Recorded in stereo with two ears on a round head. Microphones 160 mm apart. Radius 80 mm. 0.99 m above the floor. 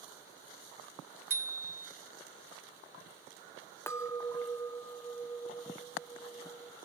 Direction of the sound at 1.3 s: 15° right (ahead or behind).